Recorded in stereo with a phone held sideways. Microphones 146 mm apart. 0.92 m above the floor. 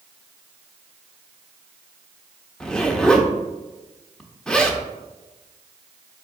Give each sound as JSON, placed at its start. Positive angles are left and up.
{"t": 2.6, "sound": "a zipper", "side_deg": 5, "distance_m": 0.5}